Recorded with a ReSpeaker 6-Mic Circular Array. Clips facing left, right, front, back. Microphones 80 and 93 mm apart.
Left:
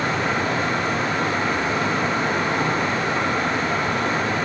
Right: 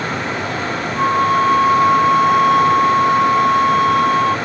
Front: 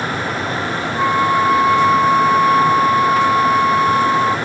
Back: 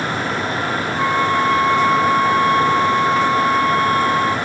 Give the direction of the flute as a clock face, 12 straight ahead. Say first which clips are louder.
Right 8 dB, front 3 dB; 3 o'clock.